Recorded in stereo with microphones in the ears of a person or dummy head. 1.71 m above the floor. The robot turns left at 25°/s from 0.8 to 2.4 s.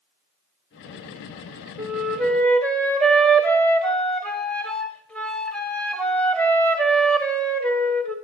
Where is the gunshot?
I don't hear a gunshot.